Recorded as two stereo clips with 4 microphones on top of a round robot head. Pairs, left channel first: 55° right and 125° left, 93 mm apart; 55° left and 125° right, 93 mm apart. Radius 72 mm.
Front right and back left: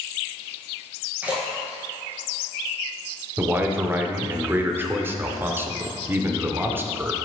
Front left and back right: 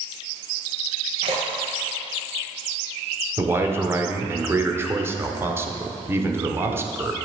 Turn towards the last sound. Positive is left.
turn(degrees=180)